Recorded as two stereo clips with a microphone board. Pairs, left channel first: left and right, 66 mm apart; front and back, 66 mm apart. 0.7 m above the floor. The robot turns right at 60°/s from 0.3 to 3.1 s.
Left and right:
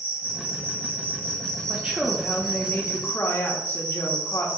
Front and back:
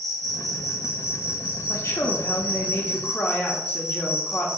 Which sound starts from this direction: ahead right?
A woman speaking, at 1.7 s.